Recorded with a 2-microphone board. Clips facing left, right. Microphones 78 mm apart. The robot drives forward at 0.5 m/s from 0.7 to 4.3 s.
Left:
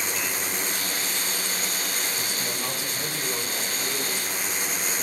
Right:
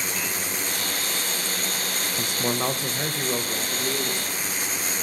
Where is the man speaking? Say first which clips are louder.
Right 5 dB; 70° right (ahead or behind), 0.5 m; by 4.4 s 20° right (ahead or behind), 1.3 m.